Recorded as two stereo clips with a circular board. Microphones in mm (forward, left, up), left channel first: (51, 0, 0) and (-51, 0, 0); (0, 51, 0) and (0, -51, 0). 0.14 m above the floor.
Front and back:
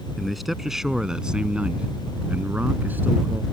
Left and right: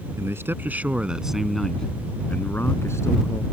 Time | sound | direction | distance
0.2 | a man speaking | 90° right | ?